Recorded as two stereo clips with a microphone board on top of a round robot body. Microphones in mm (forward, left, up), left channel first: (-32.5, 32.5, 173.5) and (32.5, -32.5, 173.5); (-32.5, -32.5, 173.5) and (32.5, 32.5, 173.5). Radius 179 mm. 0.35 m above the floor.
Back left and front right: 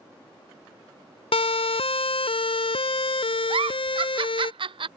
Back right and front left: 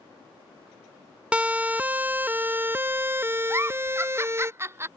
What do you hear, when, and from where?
1.3 s a siren: 120° left; by 4.5 s 110° left
3.5 s a giggle: 20° right